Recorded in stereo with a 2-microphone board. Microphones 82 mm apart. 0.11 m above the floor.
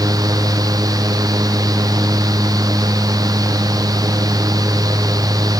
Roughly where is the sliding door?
I don't hear a sliding door.